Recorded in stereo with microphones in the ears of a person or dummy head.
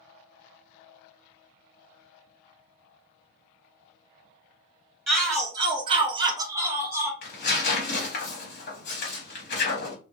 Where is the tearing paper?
55° left (ahead or behind), 1.0 m.